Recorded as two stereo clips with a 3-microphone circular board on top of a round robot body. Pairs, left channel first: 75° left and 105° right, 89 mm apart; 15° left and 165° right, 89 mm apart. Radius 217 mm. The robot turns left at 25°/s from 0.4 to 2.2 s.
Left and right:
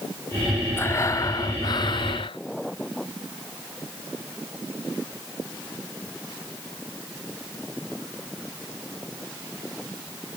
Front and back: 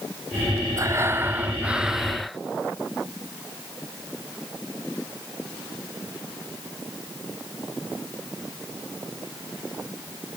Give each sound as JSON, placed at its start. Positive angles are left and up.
{"t": 0.8, "sound": "breathing", "azimuth_deg": 140}